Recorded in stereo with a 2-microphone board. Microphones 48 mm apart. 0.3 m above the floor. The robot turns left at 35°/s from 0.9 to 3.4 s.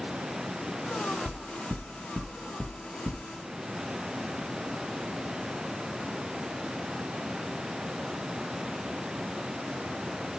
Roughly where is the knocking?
Centre.